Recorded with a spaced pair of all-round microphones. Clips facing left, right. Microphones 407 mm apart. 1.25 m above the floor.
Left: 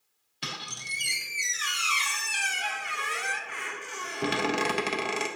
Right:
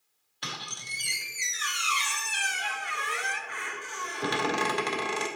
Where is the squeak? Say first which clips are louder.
Left 1 dB; 45° left (ahead or behind), 0.8 m.